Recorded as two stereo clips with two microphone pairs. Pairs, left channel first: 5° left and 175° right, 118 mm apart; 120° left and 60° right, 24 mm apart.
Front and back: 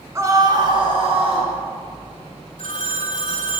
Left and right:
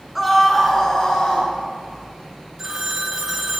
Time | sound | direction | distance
0.1 | a scream | 140° right | 1.8 m
2.6 | a phone ringing | straight ahead | 1.3 m